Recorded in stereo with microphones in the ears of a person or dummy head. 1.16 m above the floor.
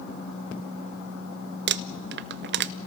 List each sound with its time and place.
1.7 s crumpling: 50° right (ahead or behind), 0.5 m